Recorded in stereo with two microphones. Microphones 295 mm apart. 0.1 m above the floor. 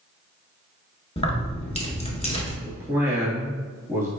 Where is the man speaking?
10° right (ahead or behind), 1.2 m.